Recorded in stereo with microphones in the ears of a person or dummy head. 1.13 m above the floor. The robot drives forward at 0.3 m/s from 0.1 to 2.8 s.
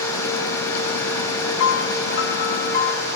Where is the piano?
65° left (ahead or behind), 0.6 m; by 3.1 s 40° left (ahead or behind), 0.8 m.